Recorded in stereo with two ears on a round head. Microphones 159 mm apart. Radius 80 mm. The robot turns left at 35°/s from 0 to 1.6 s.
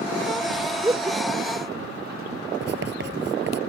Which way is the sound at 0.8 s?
15° right (ahead or behind).